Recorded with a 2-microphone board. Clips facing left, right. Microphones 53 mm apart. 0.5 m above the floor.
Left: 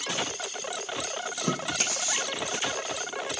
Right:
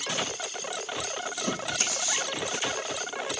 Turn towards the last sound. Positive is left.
turn(degrees=65)  # may be behind; listen again after turning